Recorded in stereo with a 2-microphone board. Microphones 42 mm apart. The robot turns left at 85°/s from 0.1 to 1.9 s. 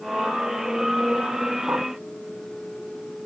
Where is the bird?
50° right (ahead or behind); by 1.9 s 60° right (ahead or behind).